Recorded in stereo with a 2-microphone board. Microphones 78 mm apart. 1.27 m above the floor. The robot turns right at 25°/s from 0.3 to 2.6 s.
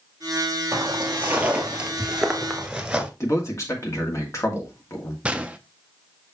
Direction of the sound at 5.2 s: 15° right (ahead or behind).